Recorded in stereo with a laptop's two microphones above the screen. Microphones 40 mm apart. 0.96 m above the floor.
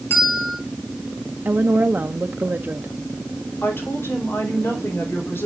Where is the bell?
60° left (ahead or behind), 3 m.